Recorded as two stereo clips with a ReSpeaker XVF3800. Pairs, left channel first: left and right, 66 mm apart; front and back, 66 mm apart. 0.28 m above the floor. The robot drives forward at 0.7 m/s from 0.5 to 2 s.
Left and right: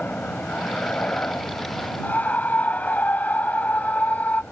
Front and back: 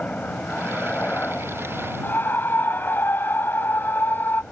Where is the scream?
35° left.